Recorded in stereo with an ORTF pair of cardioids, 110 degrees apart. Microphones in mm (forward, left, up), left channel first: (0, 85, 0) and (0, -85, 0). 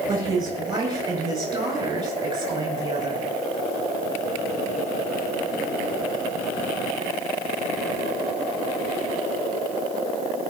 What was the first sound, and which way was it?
A woman speaking, 20° right.